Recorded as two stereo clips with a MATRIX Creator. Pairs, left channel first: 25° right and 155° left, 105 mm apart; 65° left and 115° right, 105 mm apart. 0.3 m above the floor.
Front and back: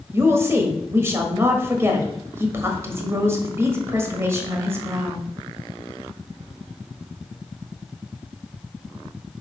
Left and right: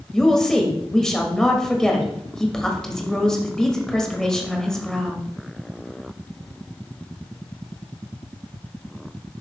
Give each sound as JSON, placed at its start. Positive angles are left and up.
{"t": 0.1, "sound": "a woman speaking", "azimuth_deg": 145, "distance_m": 1.4}